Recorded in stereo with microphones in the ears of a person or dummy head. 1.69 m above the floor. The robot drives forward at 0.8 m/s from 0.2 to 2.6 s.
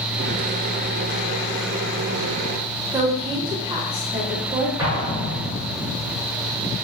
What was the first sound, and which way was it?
A woman speaking, 25° right (ahead or behind).